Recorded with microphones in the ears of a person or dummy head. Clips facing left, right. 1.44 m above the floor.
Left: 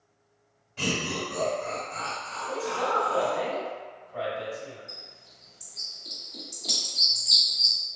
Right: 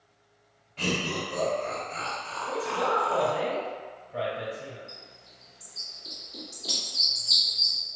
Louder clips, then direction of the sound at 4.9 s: Even; 10° right (ahead or behind).